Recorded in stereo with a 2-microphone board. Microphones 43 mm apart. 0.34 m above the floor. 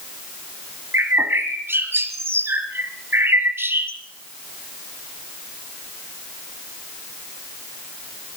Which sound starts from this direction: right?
A bird, at 0.9 s.